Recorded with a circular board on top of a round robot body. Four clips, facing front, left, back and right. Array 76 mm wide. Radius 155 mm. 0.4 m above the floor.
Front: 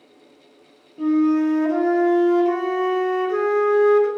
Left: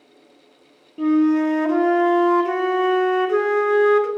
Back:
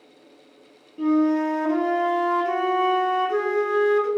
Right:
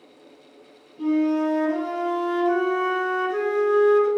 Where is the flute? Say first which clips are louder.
Left 4 dB, front 2 dB; 90° left, 0.6 m.